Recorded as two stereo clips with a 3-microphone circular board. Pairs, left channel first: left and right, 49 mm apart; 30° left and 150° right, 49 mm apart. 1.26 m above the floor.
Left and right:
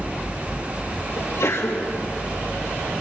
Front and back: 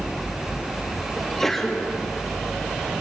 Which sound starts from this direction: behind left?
A sneeze, at 1.2 s.